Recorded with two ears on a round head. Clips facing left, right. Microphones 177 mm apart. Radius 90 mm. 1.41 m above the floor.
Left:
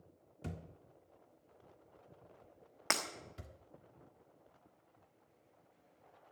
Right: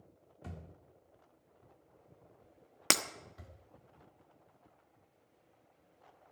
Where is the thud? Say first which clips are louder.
Left 3 dB; 30° left (ahead or behind), 1.5 m.